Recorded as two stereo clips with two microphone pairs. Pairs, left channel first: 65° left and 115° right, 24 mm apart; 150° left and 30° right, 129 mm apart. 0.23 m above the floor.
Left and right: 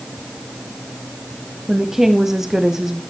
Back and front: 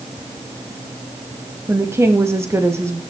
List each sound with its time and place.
1.7 s a woman speaking: 75° right, 1.0 m